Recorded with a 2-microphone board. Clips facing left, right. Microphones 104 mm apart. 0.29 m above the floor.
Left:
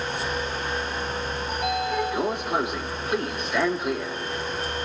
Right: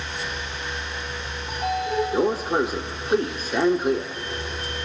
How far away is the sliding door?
About 1.4 m.